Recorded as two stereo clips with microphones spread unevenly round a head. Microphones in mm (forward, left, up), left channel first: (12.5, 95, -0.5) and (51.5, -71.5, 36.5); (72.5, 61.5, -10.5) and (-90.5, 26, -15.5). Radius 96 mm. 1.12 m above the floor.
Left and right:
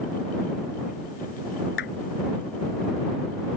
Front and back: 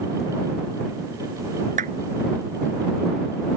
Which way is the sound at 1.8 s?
145° left.